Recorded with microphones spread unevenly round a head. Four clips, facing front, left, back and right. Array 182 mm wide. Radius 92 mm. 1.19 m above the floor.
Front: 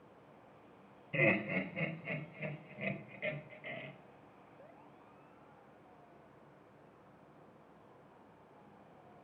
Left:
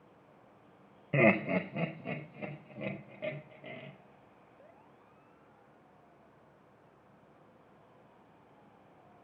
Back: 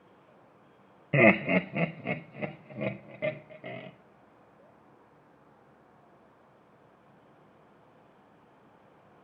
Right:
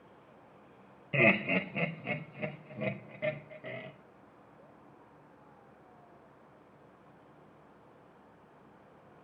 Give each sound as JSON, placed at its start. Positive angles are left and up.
{"t": 1.1, "sound": "laughter", "azimuth_deg": 165, "distance_m": 0.7}